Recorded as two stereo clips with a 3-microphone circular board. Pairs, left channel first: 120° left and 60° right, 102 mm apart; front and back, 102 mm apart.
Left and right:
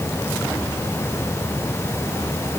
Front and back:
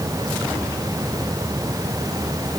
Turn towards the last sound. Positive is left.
No sound to turn to.